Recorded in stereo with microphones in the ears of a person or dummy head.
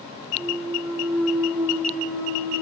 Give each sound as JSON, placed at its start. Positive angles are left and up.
{"t": 0.3, "sound": "a clunk", "side_deg": 0, "distance_m": 4.5}